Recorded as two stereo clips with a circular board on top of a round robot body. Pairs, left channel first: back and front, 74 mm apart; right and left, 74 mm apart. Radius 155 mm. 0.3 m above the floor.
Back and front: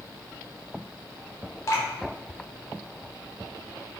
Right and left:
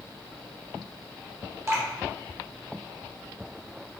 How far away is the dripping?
About 1.4 m.